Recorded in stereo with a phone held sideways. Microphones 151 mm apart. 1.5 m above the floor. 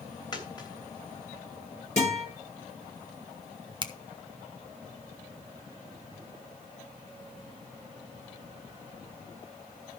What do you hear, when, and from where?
0.3 s a dropped coin: 30° left (ahead or behind), 3 m
2.0 s a guitar: 50° left (ahead or behind), 10 m
3.8 s a finger snap: 30° right (ahead or behind), 1.0 m